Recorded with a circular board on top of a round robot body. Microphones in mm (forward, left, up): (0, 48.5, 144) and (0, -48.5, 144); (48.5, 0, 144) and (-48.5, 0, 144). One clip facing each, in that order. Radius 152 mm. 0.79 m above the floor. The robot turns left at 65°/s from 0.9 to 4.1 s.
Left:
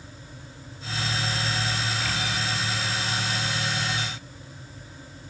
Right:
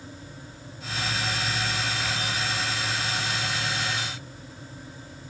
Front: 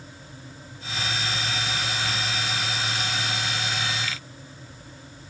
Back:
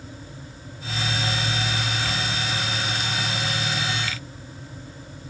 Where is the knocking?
No knocking in this recording.